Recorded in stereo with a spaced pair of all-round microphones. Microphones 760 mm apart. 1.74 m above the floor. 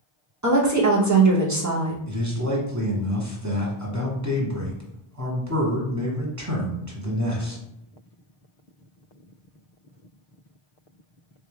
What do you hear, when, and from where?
0.4 s a woman speaking: 25° right (ahead or behind), 0.7 m
2.1 s a man speaking: 25° right (ahead or behind), 0.9 m